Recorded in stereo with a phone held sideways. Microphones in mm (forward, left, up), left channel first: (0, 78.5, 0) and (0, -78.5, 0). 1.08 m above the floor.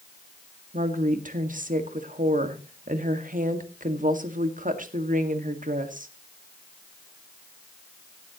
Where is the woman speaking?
60° right (ahead or behind), 1.7 m.